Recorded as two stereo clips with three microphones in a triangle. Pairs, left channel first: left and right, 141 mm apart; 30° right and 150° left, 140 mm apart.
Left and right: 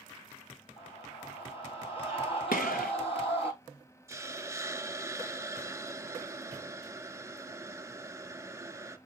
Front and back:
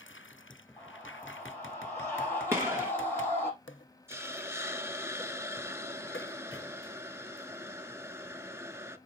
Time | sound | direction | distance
0.8 | a scream | 45° left | 6 m
2.5 | a gunshot | 80° left | 1.7 m
4.1 | a hiss | 145° right | 0.6 m